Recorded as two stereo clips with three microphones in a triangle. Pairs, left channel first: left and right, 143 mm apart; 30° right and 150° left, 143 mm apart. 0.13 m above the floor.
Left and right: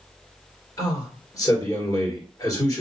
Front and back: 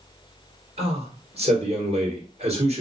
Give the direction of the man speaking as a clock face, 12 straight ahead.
7 o'clock.